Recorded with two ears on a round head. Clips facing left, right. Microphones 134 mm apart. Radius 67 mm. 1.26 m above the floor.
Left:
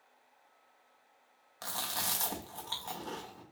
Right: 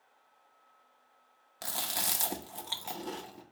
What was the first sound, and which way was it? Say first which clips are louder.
Chewing: right 1 dB; 20° right (ahead or behind).